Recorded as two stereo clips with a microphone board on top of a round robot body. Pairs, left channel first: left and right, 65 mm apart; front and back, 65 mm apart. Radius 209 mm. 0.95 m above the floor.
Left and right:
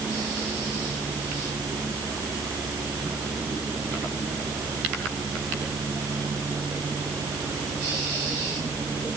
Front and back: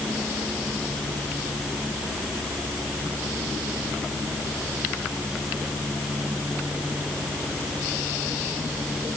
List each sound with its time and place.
Only background noise.